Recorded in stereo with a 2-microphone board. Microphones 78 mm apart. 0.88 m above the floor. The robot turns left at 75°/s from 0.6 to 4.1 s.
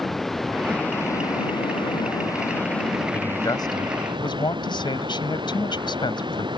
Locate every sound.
0.0 s running water: straight behind; by 6.6 s 85° right
3.1 s a man speaking: 160° left; by 6.5 s 85° left